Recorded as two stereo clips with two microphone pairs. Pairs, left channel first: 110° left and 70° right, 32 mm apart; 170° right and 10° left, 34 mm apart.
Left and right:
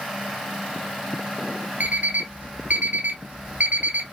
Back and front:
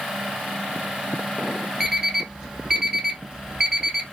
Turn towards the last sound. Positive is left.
turn(degrees=-60)